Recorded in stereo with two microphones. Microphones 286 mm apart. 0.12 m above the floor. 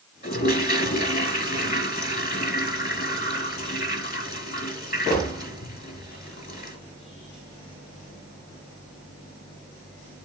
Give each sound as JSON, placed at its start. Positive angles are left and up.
{"t": 0.2, "sound": "a toilet flushing", "side_deg": 30, "distance_m": 1.5}